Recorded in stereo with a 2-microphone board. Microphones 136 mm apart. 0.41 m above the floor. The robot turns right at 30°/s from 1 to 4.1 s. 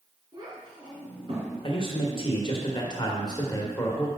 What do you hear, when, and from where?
0.3 s a child speaking: 35° right (ahead or behind), 2.5 m; by 1.5 s 50° right (ahead or behind), 2.5 m
1.6 s a man speaking: 80° left, 1.2 m; by 4.1 s 155° left, 1.2 m